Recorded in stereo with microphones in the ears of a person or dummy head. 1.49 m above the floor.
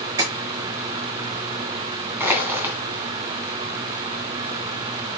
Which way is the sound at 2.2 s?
10° right (ahead or behind).